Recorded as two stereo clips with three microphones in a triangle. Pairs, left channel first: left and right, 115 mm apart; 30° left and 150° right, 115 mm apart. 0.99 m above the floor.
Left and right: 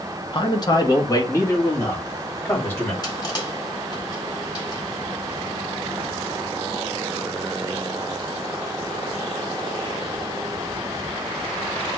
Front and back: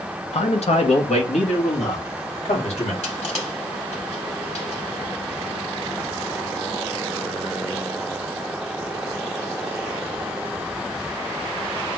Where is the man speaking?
45° left, 0.9 m; by 2.9 s 20° left, 2 m.